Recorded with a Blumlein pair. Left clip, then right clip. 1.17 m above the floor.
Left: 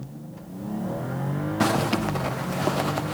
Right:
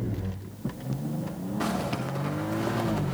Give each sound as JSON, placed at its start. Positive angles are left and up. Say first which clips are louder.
{"t": 1.6, "sound": "a zipper", "louder": "left 7 dB", "azimuth_deg": 65, "distance_m": 0.9}